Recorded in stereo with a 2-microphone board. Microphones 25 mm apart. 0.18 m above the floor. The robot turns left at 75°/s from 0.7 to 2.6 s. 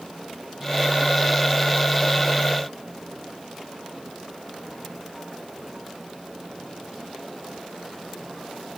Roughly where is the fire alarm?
No fire alarm in this recording.